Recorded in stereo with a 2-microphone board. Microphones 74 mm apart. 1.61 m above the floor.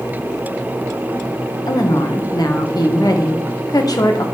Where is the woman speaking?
55° left (ahead or behind), 1.1 m.